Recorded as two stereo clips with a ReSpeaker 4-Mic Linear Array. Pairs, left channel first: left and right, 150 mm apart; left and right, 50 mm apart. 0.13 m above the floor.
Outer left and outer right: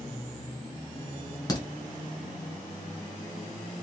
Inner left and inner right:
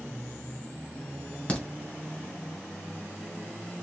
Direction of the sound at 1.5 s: 25° left (ahead or behind).